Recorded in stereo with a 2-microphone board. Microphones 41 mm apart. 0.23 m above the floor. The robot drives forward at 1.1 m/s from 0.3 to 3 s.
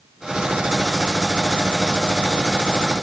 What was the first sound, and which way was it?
Only background noise.